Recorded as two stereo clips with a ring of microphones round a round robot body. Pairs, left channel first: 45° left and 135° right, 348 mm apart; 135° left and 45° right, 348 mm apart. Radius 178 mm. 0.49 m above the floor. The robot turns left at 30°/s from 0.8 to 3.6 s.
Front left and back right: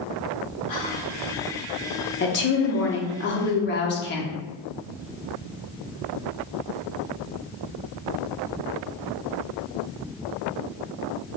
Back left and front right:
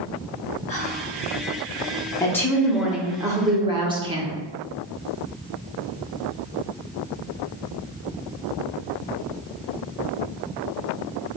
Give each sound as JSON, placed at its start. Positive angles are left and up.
{"t": 0.7, "sound": "whispering", "azimuth_deg": 65, "distance_m": 1.2}
{"t": 2.2, "sound": "a woman speaking", "azimuth_deg": 60, "distance_m": 0.7}